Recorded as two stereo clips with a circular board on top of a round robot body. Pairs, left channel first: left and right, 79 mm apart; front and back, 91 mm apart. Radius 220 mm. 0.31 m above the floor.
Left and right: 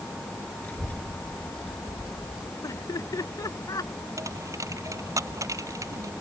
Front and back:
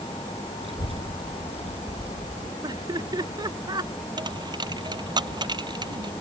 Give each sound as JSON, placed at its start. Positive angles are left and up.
{"t": 0.6, "sound": "a child speaking", "azimuth_deg": 160}
{"t": 2.6, "sound": "laughter", "azimuth_deg": 135}
{"t": 4.2, "sound": "a dropped coin", "azimuth_deg": -140}